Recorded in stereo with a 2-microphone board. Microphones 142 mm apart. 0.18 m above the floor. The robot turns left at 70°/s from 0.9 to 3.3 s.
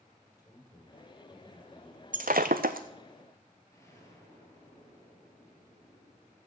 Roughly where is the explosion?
Left.